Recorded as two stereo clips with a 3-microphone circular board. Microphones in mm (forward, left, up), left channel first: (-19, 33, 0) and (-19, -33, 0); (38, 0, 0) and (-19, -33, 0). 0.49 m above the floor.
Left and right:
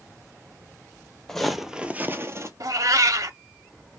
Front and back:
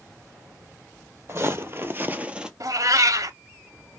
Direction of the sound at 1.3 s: 170° left.